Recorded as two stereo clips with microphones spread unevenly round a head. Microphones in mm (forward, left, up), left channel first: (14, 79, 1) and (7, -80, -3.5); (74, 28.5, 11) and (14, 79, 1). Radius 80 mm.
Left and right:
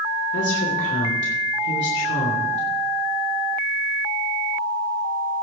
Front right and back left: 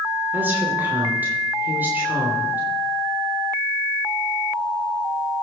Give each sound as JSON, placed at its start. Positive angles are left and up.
{"t": 0.3, "sound": "a woman speaking", "azimuth_deg": 75, "distance_m": 3.0}